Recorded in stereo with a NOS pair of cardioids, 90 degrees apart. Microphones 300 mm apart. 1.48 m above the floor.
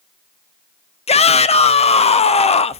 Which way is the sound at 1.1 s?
20° left.